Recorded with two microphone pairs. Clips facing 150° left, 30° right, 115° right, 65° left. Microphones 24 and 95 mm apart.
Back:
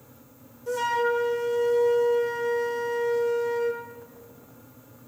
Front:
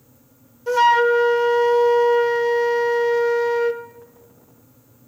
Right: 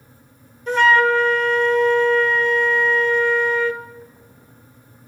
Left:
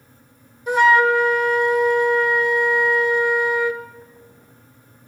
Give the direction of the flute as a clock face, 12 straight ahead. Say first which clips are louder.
Front 10 dB, left 1 dB; 12 o'clock.